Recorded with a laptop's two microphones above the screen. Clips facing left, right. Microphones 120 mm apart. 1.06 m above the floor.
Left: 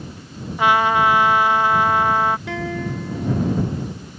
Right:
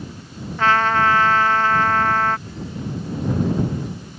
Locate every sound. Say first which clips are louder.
0.6 s a trumpet: left 1 dB; 15° left (ahead or behind)
2.5 s a guitar: left 5 dB; 85° left